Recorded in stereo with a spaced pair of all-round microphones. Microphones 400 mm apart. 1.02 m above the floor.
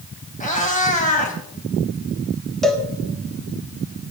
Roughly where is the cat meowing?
Centre.